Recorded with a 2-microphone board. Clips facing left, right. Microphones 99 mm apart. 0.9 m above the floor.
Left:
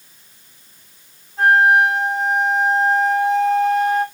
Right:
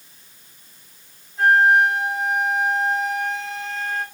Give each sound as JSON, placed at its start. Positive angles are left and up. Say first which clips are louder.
{"t": 1.4, "sound": "a flute", "louder": "left 2 dB", "side_deg": 55, "distance_m": 1.7}